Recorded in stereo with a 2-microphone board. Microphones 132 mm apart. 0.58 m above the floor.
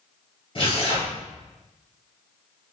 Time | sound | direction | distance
0.6 | tearing paper | 40° left (ahead or behind) | 2 m